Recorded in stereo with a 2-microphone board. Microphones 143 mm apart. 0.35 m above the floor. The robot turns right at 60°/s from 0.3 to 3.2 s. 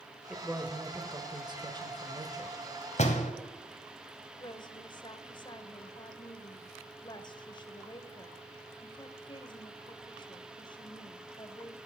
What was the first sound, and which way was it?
A man speaking, 175° right.